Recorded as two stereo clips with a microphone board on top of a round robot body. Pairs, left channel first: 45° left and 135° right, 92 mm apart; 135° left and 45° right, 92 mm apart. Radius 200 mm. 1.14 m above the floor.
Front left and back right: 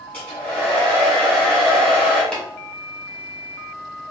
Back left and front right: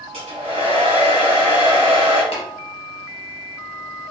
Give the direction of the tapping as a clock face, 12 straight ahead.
8 o'clock.